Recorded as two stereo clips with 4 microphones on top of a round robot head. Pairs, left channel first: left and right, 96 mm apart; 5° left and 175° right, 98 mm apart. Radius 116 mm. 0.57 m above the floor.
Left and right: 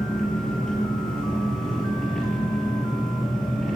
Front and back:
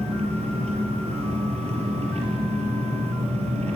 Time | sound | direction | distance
0.0 | an engine running | 175° left | 6 m